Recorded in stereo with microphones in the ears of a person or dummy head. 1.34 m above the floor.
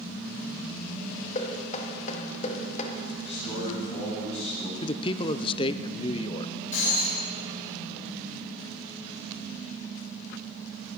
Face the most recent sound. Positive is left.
turn(degrees=40)  # may be behind; listen again after turning